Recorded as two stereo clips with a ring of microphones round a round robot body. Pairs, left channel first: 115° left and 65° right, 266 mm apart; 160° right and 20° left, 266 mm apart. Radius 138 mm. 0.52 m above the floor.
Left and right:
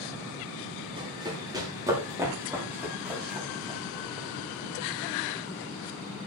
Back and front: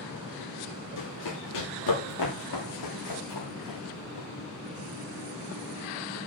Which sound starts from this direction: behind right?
Running footsteps, at 1.0 s.